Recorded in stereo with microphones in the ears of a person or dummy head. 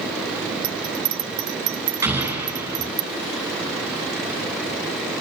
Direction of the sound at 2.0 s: 10° right (ahead or behind).